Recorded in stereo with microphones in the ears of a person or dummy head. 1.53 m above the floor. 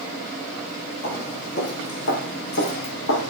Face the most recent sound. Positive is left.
turn(degrees=65)  # may be behind; listen again after turning